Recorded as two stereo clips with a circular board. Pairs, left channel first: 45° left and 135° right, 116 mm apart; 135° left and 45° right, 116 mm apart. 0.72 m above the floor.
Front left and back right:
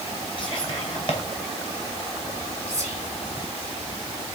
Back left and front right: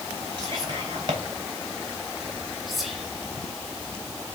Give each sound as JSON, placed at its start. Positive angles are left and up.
{"t": 0.4, "sound": "whispering", "azimuth_deg": 0, "distance_m": 4.0}
{"t": 2.7, "sound": "whispering", "azimuth_deg": 45, "distance_m": 2.0}